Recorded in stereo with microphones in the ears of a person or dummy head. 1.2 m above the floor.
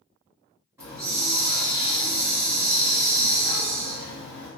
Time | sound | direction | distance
0.8 | a hiss | 10° right (ahead or behind) | 1.3 m